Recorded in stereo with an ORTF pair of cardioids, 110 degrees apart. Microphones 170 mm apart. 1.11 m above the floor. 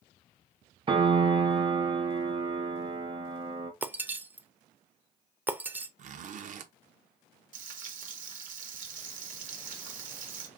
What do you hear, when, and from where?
0.9 s a piano: 30° right, 0.8 m
3.8 s breaking glass: 10° right, 0.5 m
6.0 s a zipper: 50° right, 0.7 m
7.5 s frying: 50° right, 1.0 m